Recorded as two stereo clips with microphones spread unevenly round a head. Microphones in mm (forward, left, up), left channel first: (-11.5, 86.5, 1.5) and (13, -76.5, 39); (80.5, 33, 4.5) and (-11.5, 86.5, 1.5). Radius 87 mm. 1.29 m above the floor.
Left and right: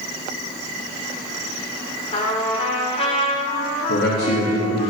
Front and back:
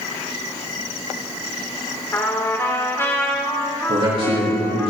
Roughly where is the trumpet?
Ahead left.